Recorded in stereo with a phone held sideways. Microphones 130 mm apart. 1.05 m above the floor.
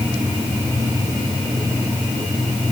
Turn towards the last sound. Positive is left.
No sound to turn to.